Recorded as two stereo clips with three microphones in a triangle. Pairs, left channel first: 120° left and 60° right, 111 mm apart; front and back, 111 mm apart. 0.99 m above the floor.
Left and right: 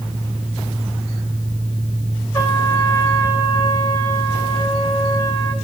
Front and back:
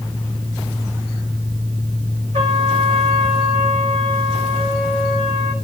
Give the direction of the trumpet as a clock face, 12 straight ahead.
6 o'clock.